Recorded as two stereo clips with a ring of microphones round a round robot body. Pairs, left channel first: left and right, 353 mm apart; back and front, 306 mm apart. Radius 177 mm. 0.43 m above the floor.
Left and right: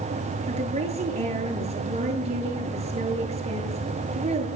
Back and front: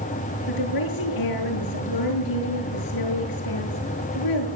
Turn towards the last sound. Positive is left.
turn(degrees=-160)